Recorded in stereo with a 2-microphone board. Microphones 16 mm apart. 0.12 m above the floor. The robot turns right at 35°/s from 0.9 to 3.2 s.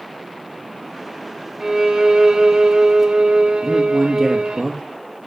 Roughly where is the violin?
Behind.